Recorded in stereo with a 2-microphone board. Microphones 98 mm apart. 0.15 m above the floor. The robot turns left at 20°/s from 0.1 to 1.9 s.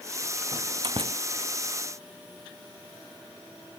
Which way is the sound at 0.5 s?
45° right (ahead or behind).